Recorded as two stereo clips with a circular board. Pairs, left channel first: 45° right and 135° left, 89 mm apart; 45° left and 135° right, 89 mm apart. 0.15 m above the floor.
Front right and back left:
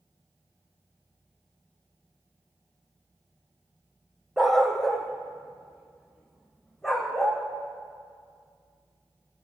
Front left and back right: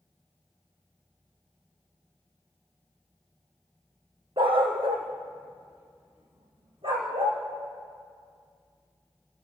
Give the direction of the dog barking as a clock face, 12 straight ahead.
4 o'clock.